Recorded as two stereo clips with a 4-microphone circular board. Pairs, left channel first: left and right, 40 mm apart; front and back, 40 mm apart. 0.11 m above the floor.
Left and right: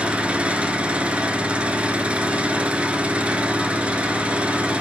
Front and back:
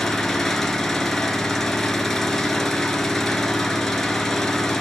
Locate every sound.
0.0 s an engine running: 75° right, 0.8 m